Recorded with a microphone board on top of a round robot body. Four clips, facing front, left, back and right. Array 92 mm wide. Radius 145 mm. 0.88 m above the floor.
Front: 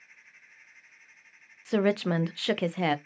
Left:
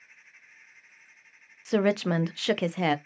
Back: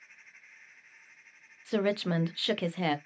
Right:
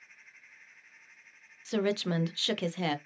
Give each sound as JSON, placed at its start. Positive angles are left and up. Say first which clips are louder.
{"t": 1.6, "sound": "a woman speaking", "louder": "left 5 dB, front 3 dB", "azimuth_deg": 65, "distance_m": 0.6}